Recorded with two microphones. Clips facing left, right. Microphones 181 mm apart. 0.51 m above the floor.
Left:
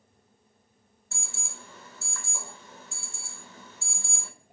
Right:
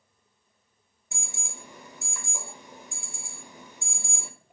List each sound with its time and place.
1.1 s an alarm: 15° right (ahead or behind), 1.9 m